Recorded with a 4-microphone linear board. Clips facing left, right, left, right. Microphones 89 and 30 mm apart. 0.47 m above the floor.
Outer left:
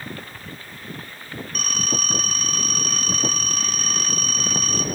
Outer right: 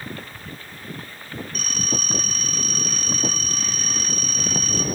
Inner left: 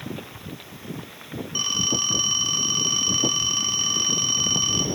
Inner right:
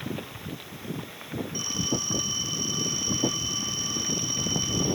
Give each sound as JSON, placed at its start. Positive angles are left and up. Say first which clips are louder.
{"t": 1.6, "sound": "a phone ringing", "louder": "outer left 2 dB, inner left 7 dB", "side_deg": 55, "distance_m": 2.5}